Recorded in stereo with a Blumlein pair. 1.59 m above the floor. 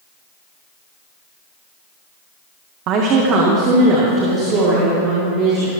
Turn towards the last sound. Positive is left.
turn(degrees=-30)